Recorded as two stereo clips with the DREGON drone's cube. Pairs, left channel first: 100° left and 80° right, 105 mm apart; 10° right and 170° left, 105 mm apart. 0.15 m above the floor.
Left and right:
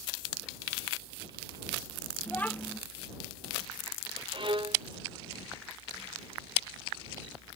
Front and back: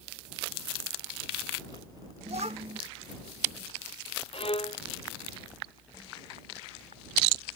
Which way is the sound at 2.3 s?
175° left.